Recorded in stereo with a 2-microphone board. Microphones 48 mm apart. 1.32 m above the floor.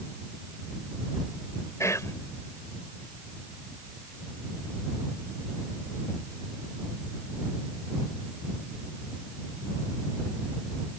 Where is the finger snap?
No finger snap in this recording.